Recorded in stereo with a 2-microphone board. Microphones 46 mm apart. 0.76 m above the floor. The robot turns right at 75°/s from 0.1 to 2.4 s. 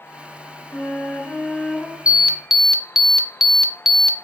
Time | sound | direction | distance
0.7 | a flute | 100° left | 2.5 m
2.1 | an alarm | 25° right (ahead or behind) | 0.5 m